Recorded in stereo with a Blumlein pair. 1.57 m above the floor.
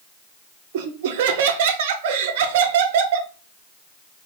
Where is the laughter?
50° right, 0.5 m.